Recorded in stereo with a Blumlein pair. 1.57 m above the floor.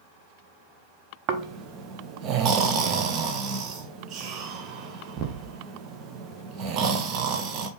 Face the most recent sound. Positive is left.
turn(degrees=-35)